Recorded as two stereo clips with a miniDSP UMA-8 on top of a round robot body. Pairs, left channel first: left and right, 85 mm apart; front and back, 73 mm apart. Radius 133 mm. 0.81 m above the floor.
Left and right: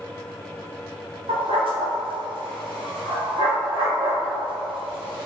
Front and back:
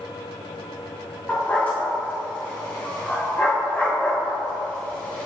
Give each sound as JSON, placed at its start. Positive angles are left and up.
{"t": 1.3, "sound": "a dog barking", "azimuth_deg": -70, "distance_m": 1.1}